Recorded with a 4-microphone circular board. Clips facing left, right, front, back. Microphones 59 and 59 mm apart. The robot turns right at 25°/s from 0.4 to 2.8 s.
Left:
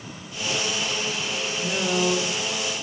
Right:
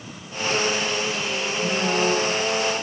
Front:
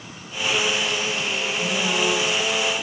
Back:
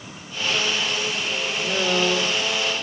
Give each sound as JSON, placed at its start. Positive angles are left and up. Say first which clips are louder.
{"t": 1.6, "sound": "a woman speaking", "louder": "right 2 dB, back 2 dB", "azimuth_deg": 170, "distance_m": 7.0}